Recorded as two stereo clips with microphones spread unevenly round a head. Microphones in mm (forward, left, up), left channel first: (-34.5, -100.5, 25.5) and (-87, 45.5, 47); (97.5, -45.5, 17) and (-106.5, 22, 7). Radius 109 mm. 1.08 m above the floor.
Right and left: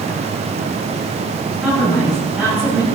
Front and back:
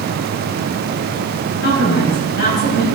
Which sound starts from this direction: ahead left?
A woman speaking, at 1.6 s.